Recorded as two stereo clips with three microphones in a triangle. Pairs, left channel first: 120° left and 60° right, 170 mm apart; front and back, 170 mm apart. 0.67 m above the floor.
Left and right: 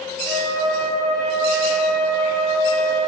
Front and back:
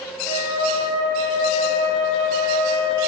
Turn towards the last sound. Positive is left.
turn(degrees=50)